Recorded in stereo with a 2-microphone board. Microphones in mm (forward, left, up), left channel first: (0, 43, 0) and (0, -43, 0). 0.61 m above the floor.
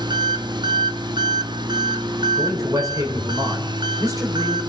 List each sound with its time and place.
0.0 s an engine running: 60° right (ahead or behind), 0.9 m
2.4 s a man speaking: 40° right (ahead or behind), 3.5 m